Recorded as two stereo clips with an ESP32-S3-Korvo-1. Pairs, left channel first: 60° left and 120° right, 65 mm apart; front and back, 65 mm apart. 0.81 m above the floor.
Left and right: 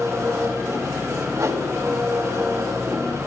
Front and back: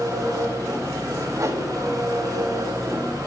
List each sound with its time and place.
0.0 s an engine running: 160° right, 9.5 m
1.4 s a whoosh: 155° right, 3.5 m